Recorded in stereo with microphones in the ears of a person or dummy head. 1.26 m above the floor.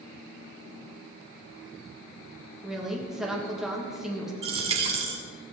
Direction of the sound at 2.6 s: Centre (ahead or behind).